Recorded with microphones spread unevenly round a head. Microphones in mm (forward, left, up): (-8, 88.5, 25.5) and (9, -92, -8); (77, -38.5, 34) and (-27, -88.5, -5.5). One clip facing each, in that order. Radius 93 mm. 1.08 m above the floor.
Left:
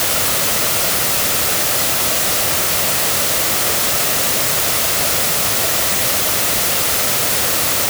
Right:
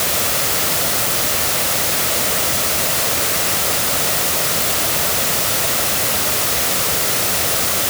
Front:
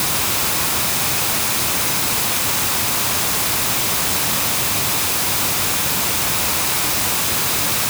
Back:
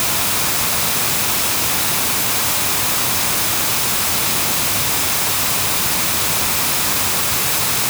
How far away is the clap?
No clap in this recording.